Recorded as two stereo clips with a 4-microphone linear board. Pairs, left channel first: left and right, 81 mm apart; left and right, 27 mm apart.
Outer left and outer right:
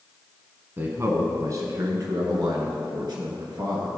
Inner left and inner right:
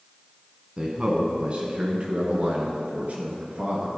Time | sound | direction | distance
0.8 | a man speaking | 30° right (ahead or behind) | 1.3 m